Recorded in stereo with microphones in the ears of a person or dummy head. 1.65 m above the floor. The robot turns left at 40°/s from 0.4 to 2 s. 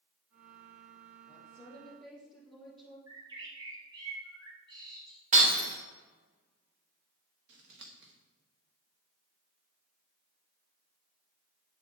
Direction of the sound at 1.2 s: 30° left.